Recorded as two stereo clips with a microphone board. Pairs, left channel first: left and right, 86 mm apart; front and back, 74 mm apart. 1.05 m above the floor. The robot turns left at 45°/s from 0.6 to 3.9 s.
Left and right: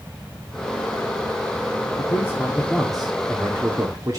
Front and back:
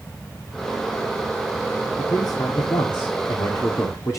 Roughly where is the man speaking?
Ahead left.